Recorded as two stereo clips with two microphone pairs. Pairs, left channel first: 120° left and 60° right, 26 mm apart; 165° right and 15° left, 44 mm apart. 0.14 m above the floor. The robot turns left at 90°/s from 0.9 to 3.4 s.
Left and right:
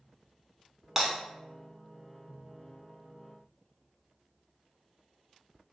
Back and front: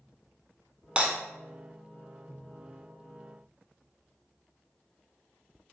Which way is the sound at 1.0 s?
5° right.